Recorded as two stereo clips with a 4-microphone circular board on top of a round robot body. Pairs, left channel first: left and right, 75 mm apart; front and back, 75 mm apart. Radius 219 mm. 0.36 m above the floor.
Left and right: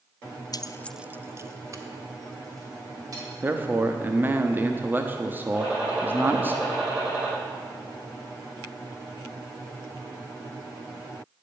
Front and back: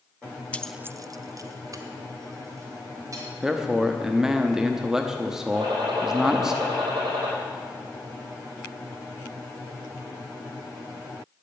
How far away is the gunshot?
About 4.5 m.